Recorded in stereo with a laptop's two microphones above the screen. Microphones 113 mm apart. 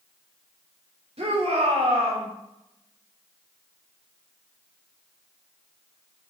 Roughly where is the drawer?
No drawer in this recording.